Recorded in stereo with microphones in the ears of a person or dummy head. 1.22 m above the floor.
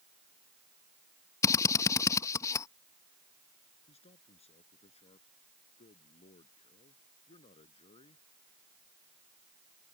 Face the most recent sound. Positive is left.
turn(degrees=35)  # may be behind; listen again after turning